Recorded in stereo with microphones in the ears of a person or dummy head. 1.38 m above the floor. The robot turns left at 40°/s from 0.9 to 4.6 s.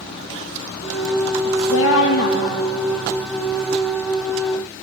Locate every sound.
1.5 s a woman speaking: 85° left, 2.5 m; by 2.7 s 35° left, 2.5 m